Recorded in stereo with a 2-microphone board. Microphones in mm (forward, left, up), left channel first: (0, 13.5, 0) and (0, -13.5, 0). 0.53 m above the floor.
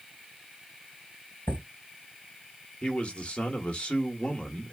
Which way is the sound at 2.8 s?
40° left (ahead or behind).